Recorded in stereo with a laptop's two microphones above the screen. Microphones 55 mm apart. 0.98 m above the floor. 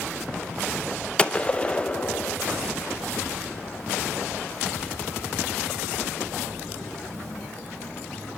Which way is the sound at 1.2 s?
20° left (ahead or behind).